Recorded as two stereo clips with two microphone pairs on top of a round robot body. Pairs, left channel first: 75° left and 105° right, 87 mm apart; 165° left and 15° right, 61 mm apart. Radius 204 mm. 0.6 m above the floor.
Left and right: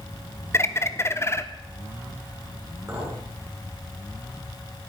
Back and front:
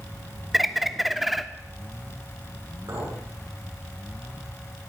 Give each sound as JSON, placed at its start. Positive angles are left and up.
{"t": 0.5, "sound": "a bird", "azimuth_deg": 60, "distance_m": 1.3}
{"t": 2.9, "sound": "a clink", "azimuth_deg": -45, "distance_m": 8.0}